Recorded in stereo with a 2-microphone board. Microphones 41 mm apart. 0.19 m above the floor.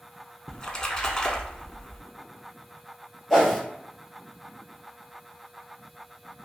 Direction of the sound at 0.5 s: 25° left (ahead or behind).